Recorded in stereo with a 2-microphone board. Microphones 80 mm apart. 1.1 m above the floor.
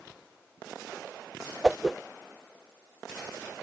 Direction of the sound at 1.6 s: 10° right (ahead or behind).